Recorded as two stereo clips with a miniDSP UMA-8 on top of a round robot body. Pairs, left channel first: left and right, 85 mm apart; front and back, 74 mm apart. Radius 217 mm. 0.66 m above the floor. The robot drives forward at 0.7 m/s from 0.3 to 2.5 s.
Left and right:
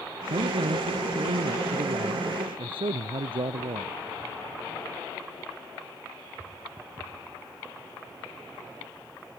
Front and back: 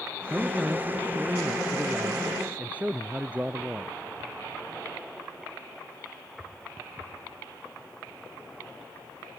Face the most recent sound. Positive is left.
turn(degrees=-110)